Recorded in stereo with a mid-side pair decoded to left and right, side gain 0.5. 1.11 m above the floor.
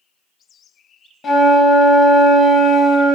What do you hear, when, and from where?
1.2 s a flute: 50° left, 0.7 m